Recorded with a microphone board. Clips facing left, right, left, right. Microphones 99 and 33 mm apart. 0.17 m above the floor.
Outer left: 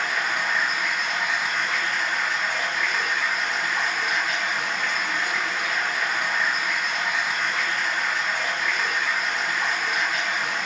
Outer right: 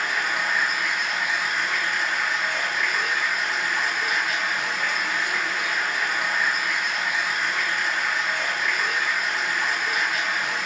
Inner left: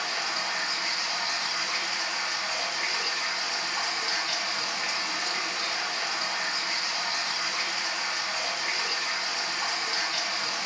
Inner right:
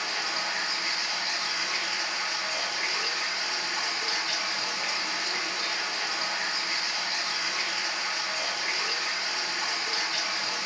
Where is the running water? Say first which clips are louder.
Even, even; 5° right (ahead or behind), 0.7 m.